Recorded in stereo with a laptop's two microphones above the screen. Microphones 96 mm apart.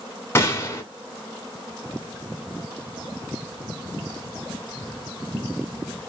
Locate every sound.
0.3 s a gunshot: 25° left (ahead or behind), 1.4 m